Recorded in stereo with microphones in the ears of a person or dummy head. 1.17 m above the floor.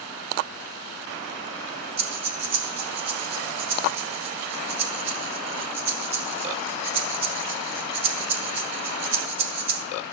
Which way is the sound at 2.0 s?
10° right (ahead or behind).